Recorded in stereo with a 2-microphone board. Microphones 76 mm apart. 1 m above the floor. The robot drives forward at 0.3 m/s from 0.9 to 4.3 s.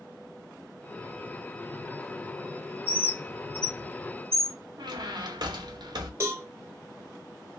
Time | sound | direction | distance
2.9 | a bird | 20° right (ahead or behind) | 0.9 m
4.8 | a squeak | 65° right (ahead or behind) | 0.6 m
6.2 | a cowbell | 30° right (ahead or behind) | 0.8 m